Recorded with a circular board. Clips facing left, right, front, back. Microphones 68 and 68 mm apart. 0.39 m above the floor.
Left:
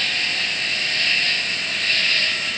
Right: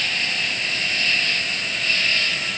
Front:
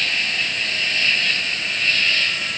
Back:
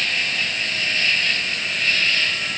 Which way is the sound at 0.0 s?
105° left.